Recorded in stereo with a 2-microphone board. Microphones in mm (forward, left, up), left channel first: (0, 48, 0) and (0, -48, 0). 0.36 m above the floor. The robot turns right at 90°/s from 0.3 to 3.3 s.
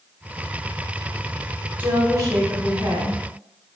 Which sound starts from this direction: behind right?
A woman speaking, at 1.8 s.